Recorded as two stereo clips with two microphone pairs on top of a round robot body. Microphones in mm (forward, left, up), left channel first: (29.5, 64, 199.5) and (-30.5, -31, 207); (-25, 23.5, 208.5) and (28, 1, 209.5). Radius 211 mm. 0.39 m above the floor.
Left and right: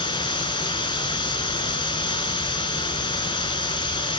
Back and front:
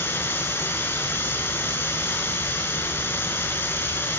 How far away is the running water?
About 3 m.